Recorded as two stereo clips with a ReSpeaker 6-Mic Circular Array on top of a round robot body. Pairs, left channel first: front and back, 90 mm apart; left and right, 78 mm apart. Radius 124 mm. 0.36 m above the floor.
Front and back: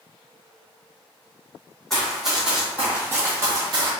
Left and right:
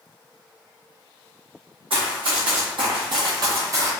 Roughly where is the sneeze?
I don't hear a sneeze.